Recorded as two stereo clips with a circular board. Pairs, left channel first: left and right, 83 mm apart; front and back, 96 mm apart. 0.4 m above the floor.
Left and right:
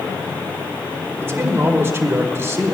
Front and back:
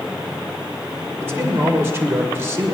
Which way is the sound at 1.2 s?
135° right.